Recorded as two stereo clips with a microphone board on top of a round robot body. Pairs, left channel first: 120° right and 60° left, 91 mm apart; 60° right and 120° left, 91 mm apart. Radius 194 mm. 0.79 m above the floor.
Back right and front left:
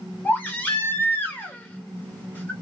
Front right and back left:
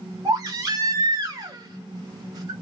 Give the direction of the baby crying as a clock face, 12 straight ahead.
6 o'clock.